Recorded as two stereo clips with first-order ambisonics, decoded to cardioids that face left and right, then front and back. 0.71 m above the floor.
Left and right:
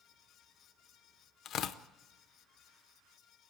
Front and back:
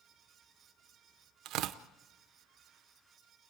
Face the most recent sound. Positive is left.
turn(degrees=140)